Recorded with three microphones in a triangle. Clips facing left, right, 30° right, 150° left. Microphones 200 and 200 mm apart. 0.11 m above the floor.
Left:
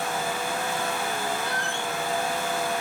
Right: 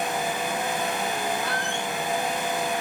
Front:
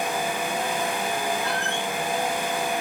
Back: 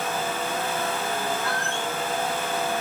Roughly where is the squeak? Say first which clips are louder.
Right 1 dB, front 1 dB; right.